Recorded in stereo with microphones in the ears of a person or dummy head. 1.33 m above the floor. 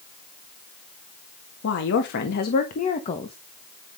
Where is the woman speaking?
70° left (ahead or behind), 2 m; by 3.4 s 25° left (ahead or behind), 1.5 m.